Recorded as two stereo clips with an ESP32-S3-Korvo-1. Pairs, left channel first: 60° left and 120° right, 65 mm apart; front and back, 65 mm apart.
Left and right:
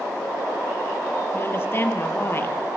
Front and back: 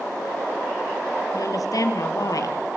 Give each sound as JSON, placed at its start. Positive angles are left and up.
{"t": 1.3, "sound": "a woman speaking", "azimuth_deg": 10, "distance_m": 2.5}